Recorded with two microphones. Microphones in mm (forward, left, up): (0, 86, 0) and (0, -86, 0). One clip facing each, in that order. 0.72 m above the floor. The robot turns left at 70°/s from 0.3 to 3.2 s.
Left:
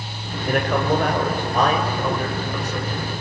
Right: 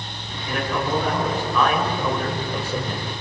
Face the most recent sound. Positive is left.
turn(degrees=-70)